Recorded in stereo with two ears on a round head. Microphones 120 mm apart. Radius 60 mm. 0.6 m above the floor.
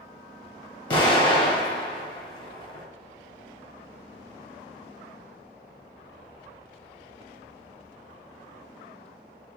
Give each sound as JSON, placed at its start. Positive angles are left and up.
{"t": 0.9, "sound": "an explosion", "side_deg": 35, "distance_m": 2.5}